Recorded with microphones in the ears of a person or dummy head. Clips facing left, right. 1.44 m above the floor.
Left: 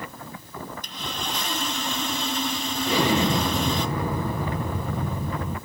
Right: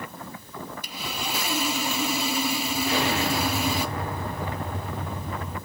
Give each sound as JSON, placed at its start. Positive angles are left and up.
{"t": 0.8, "sound": "sawing", "side_deg": -10, "distance_m": 0.7}
{"t": 2.9, "sound": "an explosion", "side_deg": 80, "distance_m": 1.1}